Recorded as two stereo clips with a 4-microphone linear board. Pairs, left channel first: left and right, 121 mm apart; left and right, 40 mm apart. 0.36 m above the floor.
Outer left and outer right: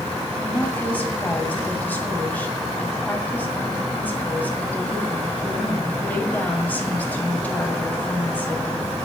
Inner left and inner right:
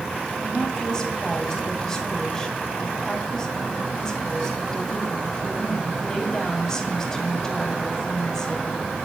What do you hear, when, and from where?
0.4 s a woman speaking: 15° left (ahead or behind), 2.5 m